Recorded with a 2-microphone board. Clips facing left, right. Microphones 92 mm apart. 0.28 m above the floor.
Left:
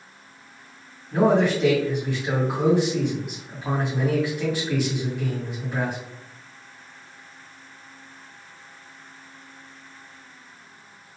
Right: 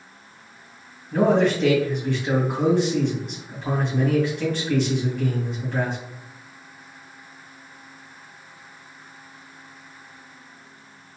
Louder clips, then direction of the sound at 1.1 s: Even; 10° left (ahead or behind).